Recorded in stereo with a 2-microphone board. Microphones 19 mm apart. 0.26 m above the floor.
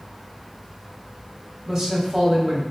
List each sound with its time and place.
1.7 s a man speaking: 30° right (ahead or behind), 1.1 m